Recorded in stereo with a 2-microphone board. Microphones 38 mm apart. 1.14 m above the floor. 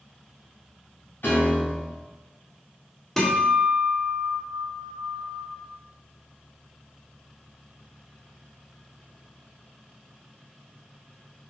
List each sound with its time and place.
1.2 s a piano: 70° left (ahead or behind), 3 m
3.2 s a guitar: 5° left (ahead or behind), 1.6 m